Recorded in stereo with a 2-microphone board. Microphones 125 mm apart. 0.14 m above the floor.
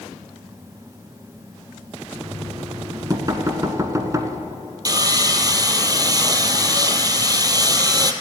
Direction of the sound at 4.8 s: 30° right (ahead or behind).